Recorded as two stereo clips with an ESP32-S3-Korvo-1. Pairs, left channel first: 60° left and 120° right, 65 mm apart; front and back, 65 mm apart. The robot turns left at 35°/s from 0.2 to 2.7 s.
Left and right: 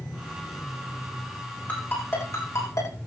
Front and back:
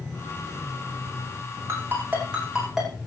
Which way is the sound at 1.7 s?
130° left.